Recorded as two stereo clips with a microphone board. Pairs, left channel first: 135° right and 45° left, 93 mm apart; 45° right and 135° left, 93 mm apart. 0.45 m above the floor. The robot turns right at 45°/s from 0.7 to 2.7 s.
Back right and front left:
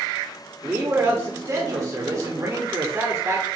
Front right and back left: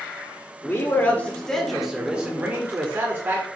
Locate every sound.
0.6 s a man speaking: 5° right, 1.1 m; by 3.5 s 85° left, 1.1 m